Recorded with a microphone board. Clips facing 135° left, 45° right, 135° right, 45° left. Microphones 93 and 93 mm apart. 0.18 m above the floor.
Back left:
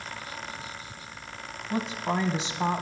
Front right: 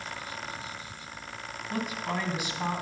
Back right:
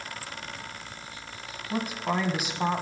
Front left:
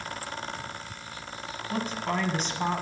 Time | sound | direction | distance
1.7 | a woman speaking | 155° left | 1.3 m